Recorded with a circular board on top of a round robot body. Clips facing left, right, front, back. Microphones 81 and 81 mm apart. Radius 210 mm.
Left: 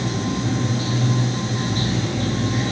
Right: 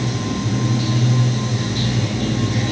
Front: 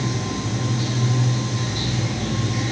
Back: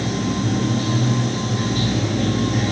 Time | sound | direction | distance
0.0 | running water | 140° left | 7.5 m